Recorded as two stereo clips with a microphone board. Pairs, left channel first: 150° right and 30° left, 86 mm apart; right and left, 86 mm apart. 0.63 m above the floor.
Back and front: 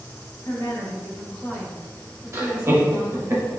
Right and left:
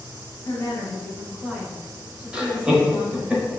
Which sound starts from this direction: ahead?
Laughter, at 2.3 s.